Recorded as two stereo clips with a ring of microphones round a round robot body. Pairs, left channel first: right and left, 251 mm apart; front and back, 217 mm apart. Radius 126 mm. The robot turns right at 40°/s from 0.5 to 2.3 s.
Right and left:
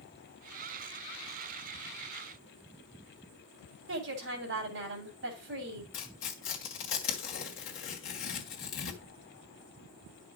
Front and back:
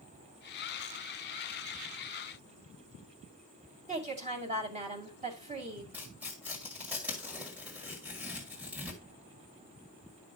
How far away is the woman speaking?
About 2.5 m.